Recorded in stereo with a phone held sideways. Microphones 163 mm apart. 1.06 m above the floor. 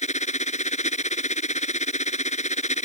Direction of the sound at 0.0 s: 45° left (ahead or behind).